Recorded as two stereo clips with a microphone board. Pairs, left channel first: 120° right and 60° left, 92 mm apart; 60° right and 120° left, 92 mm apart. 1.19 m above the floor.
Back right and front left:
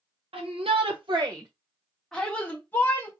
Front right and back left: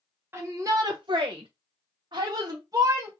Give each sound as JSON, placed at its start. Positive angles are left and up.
{"t": 0.3, "sound": "a shout", "azimuth_deg": 55, "distance_m": 0.8}